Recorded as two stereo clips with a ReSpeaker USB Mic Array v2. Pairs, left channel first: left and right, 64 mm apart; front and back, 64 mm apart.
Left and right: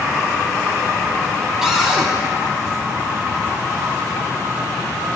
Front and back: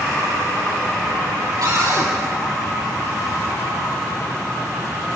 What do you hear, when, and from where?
1.6 s a cupboard door: 170° right, 5 m